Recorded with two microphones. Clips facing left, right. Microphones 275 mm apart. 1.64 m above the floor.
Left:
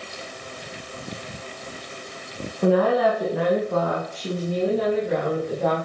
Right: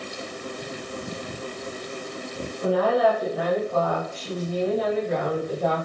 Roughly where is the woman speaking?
Left.